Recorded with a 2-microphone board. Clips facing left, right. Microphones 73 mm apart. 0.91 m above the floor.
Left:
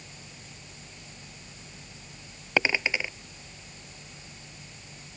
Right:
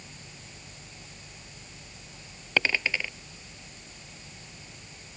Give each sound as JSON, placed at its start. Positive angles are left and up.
{"t": 2.6, "sound": "a dropped coin", "side_deg": 15}